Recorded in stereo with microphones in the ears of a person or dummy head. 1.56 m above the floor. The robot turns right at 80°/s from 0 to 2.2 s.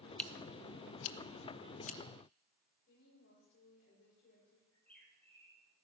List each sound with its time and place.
0.2 s scissors: 5° left (ahead or behind), 0.9 m; by 2.0 s 30° left (ahead or behind), 0.9 m
2.9 s a woman speaking: 55° left (ahead or behind), 6.5 m
4.7 s a bird: 10° left (ahead or behind), 5 m